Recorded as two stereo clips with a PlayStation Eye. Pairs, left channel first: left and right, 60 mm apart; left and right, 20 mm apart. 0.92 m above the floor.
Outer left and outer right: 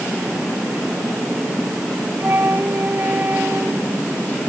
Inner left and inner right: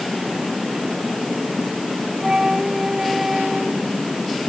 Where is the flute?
40° right (ahead or behind).